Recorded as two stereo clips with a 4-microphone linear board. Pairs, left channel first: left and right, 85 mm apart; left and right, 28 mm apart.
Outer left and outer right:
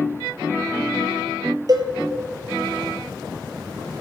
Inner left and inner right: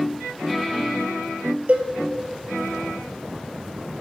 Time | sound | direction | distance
1.7 | a cowbell | 50° right (ahead or behind) | 1.2 m